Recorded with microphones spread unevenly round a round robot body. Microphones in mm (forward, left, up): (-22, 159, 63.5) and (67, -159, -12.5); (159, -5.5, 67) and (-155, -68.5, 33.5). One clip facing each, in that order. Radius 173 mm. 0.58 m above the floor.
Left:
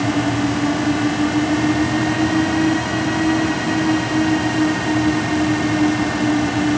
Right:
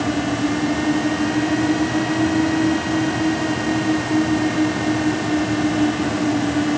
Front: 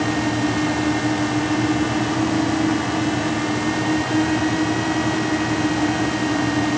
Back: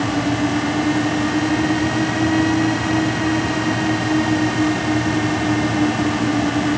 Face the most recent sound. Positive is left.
No sound to turn to.